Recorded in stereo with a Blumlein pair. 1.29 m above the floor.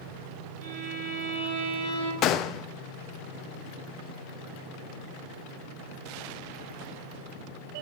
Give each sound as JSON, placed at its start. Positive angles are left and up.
{"t": 0.6, "sound": "a violin", "azimuth_deg": -45, "distance_m": 9.0}
{"t": 2.2, "sound": "a gunshot", "azimuth_deg": 35, "distance_m": 0.7}